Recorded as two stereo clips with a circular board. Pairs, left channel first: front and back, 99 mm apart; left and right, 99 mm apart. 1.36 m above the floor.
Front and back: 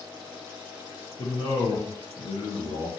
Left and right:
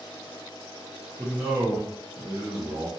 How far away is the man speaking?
About 0.8 m.